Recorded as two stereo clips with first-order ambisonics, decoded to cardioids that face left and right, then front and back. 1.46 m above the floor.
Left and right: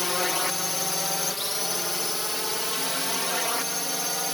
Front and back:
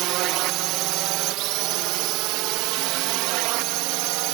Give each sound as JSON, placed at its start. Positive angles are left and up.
{"t": 0.0, "sound": "a drone", "azimuth_deg": 170}